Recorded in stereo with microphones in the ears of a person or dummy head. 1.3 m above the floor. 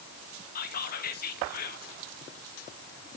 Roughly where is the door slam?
No door slam in this recording.